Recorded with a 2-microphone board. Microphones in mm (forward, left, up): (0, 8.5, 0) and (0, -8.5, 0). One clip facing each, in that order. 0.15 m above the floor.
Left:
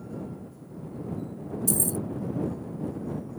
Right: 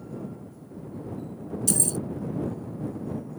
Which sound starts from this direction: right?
Keys jangling, at 1.7 s.